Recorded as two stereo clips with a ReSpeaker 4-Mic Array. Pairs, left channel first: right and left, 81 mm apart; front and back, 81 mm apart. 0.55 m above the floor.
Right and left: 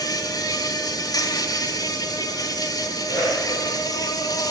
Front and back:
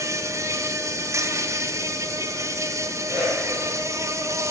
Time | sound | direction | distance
0.0 | an insect | 130° right | 1.4 m
3.1 | a whoosh | 125° right | 8 m